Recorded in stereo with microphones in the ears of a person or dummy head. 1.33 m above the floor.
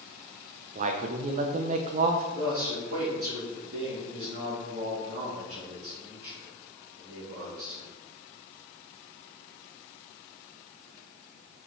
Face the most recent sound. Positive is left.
turn(degrees=-50)  # may be behind; listen again after turning